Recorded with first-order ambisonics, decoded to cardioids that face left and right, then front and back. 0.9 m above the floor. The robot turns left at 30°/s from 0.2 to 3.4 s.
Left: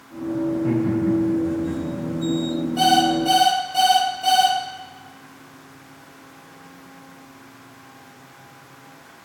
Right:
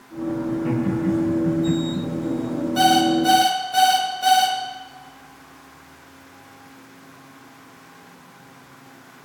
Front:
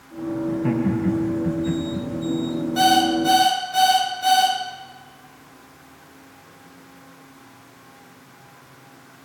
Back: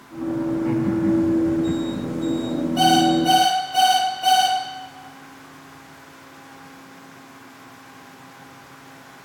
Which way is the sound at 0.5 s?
5° left.